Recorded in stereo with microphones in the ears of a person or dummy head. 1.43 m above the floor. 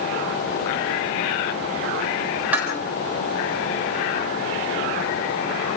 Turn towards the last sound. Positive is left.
turn(degrees=-10)  # may be behind; listen again after turning